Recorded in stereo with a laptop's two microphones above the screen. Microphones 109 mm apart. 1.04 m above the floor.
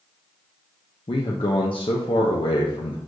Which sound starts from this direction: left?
A man speaking, at 1.1 s.